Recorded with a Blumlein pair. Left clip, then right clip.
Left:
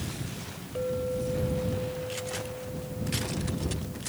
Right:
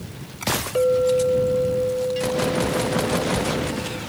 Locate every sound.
0.8 s a clink: 30° right